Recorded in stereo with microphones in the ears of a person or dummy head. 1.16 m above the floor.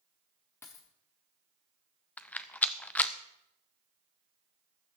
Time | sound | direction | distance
0.6 | a dropped coin | 10° left (ahead or behind) | 1.0 m
2.2 | a rattle | 5° left (ahead or behind) | 0.5 m